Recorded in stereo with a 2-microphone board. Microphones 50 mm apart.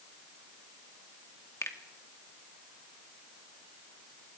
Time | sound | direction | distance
1.6 | a finger snap | 65° left (ahead or behind) | 2.0 m